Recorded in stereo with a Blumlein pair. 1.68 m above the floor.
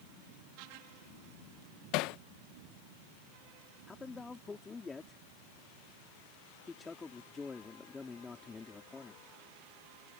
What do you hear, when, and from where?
1.9 s hammering: 40° left
3.9 s a man speaking: 15° left